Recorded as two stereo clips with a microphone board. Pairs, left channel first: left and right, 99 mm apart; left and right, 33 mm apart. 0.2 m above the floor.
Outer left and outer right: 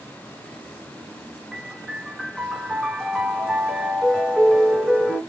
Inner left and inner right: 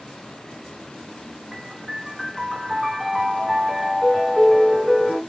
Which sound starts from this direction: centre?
A piano, at 1.5 s.